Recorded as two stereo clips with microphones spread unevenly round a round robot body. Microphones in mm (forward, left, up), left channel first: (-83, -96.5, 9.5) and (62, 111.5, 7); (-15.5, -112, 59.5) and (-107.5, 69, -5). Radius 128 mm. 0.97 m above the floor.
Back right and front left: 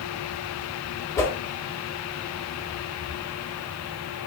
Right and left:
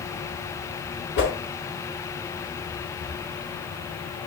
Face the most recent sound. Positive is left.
turn(degrees=-45)